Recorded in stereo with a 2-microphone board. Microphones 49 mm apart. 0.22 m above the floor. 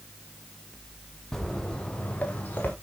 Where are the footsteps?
10° left (ahead or behind), 2.5 m; by 2.7 s 35° left (ahead or behind), 3.5 m.